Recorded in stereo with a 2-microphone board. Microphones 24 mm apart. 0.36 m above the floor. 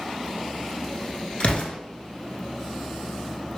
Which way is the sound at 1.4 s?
55° left (ahead or behind).